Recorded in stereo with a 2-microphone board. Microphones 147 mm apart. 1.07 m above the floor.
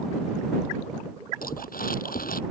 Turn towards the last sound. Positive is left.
turn(degrees=80)